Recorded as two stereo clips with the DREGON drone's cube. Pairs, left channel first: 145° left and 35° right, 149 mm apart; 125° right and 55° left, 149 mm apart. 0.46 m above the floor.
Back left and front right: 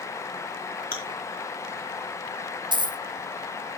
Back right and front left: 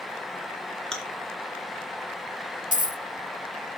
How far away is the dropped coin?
About 0.7 m.